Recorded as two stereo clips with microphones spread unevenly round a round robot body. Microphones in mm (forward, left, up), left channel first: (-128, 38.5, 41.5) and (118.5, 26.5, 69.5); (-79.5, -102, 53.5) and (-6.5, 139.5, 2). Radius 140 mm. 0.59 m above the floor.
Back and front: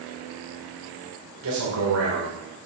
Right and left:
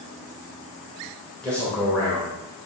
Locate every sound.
1.4 s a man speaking: 15° right, 2.5 m